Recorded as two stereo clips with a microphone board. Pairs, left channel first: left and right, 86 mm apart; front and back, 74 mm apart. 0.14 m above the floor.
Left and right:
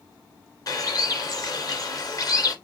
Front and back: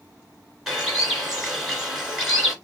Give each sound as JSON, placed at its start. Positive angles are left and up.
{"t": 0.7, "sound": "a bird", "azimuth_deg": 95, "distance_m": 2.0}